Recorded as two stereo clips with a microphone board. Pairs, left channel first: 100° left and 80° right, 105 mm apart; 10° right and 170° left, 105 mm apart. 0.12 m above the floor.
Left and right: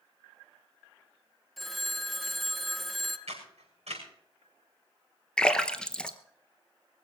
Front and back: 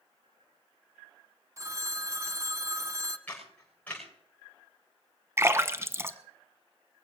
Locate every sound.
1.6 s a phone ringing: 170° right, 0.7 m
3.3 s a camera shutter: 85° right, 6.5 m
5.4 s a splash: 165° left, 0.7 m